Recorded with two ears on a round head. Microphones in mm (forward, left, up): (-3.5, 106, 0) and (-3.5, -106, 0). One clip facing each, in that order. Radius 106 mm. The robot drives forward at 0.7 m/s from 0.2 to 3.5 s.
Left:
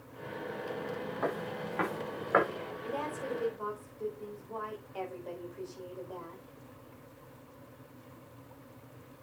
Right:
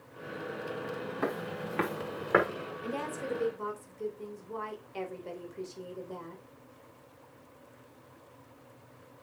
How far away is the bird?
No bird in this recording.